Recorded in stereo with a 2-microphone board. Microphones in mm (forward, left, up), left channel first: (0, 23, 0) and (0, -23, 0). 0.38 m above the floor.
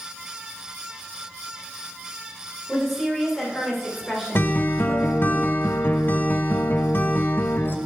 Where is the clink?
No clink in this recording.